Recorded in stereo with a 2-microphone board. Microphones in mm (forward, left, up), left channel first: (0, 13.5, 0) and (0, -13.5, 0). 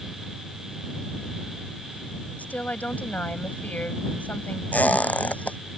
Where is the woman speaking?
85° left.